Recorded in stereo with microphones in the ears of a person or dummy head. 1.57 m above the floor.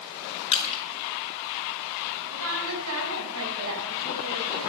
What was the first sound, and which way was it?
Crushing, 35° left (ahead or behind).